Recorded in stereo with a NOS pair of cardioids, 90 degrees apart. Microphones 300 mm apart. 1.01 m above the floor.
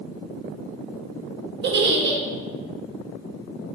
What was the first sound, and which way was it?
A giggle, 40° right.